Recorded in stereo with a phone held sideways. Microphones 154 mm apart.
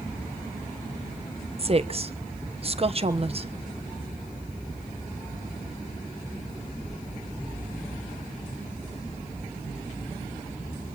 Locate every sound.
1.6 s a woman speaking: 40° right (ahead or behind), 1.0 m